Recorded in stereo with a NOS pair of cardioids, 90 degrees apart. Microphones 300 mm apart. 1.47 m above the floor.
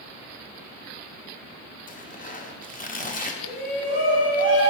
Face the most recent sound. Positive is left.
turn(degrees=55)